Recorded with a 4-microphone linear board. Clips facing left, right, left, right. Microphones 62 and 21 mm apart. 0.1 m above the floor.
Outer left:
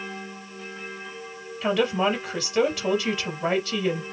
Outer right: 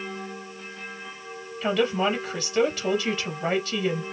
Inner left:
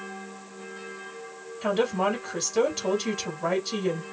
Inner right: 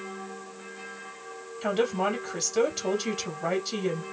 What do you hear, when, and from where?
1.6 s a woman speaking: 5° left (ahead or behind), 2 m